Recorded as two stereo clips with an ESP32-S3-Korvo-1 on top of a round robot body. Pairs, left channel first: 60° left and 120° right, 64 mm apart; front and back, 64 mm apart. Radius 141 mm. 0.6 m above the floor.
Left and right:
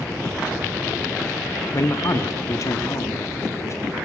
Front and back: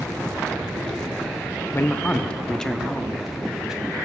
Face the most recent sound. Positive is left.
turn(degrees=100)